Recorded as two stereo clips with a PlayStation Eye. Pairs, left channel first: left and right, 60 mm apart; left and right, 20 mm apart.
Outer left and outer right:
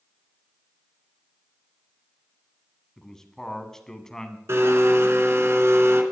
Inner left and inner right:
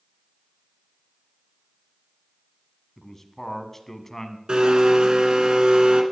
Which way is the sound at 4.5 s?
45° right (ahead or behind).